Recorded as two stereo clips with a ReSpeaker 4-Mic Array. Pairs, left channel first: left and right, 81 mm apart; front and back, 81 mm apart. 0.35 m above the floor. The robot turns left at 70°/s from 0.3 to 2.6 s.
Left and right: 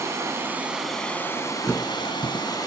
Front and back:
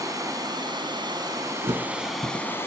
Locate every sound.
0.0 s running water: 140° right, 3 m; by 2.7 s 60° left, 3 m
1.6 s a thud: 160° left, 1.2 m; by 2.6 s 95° left, 1.2 m